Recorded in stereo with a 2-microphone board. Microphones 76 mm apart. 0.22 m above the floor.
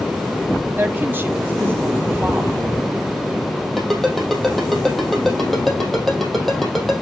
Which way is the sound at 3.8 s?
Centre (ahead or behind).